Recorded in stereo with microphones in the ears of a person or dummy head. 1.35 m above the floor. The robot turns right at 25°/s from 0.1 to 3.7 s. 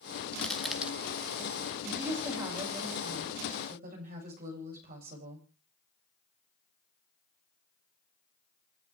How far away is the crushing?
About 1.1 m.